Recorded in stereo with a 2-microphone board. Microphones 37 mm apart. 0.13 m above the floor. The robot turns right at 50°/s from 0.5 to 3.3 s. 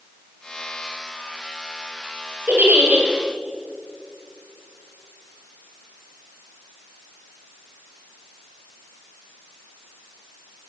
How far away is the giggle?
About 2 m.